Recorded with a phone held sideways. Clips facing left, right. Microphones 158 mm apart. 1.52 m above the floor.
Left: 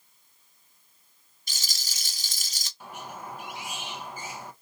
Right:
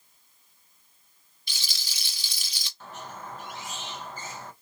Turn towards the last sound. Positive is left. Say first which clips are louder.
# left 1 dB
turn(degrees=10)  # may be behind; listen again after turning